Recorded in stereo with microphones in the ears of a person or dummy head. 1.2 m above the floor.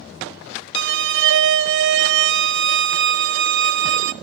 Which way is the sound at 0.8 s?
75° right (ahead or behind).